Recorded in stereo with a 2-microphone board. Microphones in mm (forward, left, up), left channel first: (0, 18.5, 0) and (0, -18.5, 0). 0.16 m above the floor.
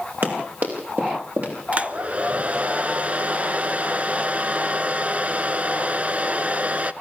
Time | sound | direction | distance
0.2 | running footsteps | 65° right (ahead or behind) | 7 m
1.7 | a hair dryer | 40° right (ahead or behind) | 0.7 m